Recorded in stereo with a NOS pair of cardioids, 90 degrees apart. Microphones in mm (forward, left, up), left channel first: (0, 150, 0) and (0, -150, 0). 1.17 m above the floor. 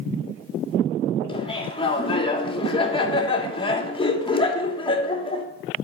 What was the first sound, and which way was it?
Laughter, 15° left.